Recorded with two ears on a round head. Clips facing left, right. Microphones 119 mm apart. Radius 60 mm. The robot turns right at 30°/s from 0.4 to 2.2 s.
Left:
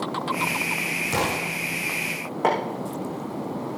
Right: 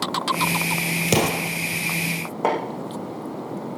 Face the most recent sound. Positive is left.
turn(degrees=-10)  # may be behind; listen again after turning